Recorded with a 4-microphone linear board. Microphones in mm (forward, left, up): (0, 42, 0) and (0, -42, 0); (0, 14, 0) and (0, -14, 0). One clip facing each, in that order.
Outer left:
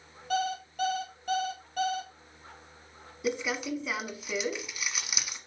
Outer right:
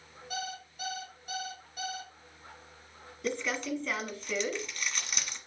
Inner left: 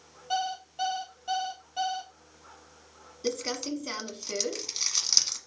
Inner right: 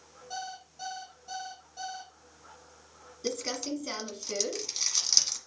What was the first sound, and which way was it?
An alarm clock, 80° left.